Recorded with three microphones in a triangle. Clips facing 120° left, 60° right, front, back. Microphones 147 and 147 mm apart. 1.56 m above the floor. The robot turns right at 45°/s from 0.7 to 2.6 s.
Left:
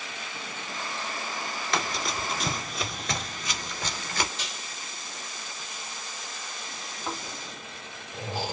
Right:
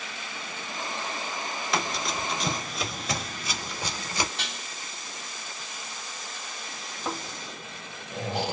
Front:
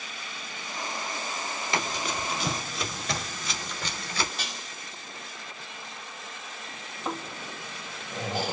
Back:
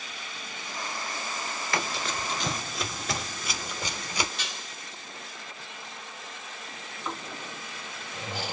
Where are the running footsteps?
20° left, 1.6 m; by 4.3 s 120° right, 1.7 m.